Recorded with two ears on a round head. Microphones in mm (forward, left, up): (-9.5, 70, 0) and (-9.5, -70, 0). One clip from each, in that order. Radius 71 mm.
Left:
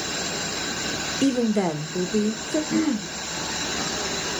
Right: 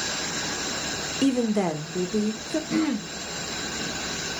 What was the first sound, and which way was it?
A woman speaking, 15° right (ahead or behind).